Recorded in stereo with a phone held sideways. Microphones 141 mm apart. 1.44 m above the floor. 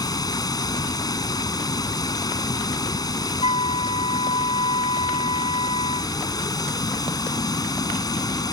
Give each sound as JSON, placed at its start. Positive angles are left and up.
{"t": 0.0, "sound": "running water", "side_deg": 30}
{"t": 3.4, "sound": "a flute", "side_deg": 45}